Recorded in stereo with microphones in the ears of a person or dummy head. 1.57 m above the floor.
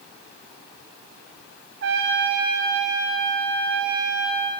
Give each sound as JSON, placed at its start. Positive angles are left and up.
{"t": 1.8, "sound": "a trumpet", "side_deg": -60, "distance_m": 1.1}